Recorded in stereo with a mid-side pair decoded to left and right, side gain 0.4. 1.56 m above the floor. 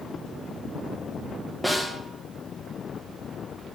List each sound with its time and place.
1.6 s a snare drum: straight ahead, 2.0 m